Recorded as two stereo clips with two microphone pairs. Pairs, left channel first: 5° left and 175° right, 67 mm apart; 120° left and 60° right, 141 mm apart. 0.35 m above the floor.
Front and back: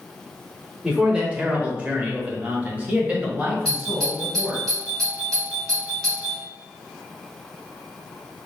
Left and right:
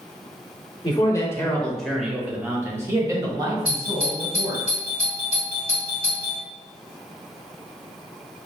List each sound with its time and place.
0.8 s a man speaking: 120° left, 0.9 m; by 4.7 s 110° right, 2 m
3.6 s a doorbell: 80° right, 1.8 m